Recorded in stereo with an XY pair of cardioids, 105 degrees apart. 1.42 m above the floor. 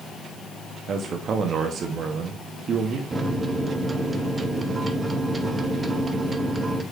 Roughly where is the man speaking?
Ahead right.